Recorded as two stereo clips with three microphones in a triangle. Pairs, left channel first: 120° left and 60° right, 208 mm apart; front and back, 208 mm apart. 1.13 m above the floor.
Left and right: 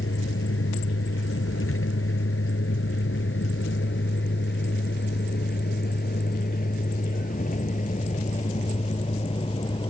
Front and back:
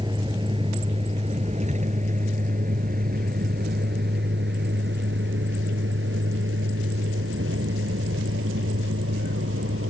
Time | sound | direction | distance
0.0 | a vehicle | 110° left | ?